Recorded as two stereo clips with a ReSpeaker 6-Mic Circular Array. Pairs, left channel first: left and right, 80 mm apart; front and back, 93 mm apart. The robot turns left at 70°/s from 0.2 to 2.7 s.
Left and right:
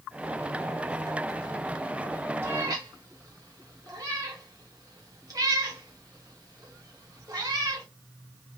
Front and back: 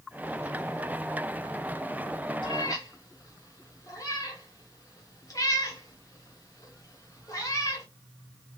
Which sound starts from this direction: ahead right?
A cat meowing, at 2.4 s.